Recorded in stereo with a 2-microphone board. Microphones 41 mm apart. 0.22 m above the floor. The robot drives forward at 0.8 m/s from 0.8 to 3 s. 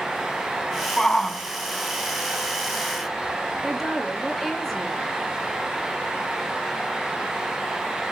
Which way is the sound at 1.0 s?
15° left (ahead or behind).